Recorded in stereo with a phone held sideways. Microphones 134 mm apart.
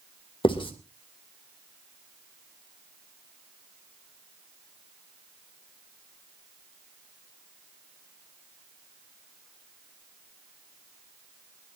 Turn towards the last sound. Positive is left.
turn(degrees=40)  # may be behind; listen again after turning